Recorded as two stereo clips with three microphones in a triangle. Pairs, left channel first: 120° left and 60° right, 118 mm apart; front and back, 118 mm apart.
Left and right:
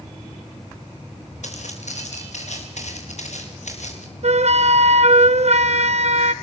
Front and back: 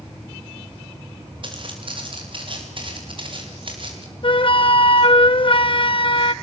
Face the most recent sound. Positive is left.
turn(degrees=-40)